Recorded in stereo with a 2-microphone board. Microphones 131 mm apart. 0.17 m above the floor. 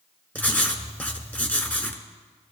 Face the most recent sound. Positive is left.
turn(degrees=10)  # may be behind; listen again after turning